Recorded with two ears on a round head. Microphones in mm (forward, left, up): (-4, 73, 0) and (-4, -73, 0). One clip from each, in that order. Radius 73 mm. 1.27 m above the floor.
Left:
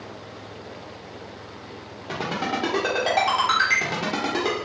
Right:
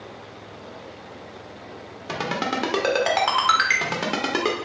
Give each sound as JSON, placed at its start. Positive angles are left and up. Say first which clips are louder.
{"t": 2.1, "sound": "a ringtone", "louder": "right 1 dB", "side_deg": -50, "distance_m": 1.0}